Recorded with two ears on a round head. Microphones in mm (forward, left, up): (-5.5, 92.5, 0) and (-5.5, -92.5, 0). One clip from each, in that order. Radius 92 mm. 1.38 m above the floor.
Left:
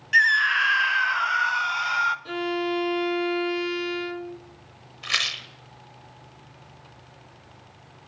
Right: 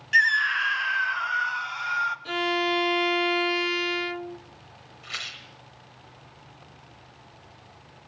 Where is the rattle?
50° left (ahead or behind), 1.9 m.